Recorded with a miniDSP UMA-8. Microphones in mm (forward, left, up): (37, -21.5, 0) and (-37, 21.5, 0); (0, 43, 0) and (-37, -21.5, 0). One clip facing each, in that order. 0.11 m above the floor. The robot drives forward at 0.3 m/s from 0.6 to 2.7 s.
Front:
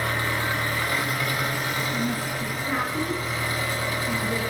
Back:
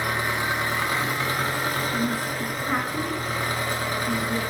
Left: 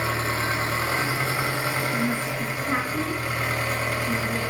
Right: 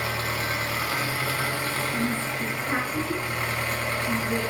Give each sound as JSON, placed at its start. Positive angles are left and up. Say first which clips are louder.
{"t": 0.0, "sound": "an engine running", "louder": "back 1 dB, left 3 dB", "azimuth_deg": 90, "distance_m": 0.8}
{"t": 1.9, "sound": "a woman speaking", "louder": "back 1 dB, left 2 dB", "azimuth_deg": 115, "distance_m": 1.2}